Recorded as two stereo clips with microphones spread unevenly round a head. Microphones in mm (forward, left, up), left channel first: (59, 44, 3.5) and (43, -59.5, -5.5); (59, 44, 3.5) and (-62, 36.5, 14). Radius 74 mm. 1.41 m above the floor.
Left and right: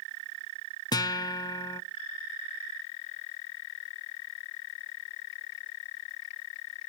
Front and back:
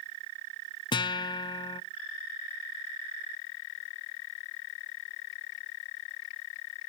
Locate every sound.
0.9 s a guitar: 50° left, 0.6 m